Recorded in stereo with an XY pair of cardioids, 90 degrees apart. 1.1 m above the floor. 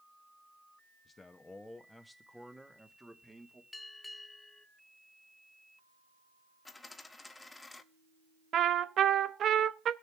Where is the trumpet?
65° right, 0.8 m.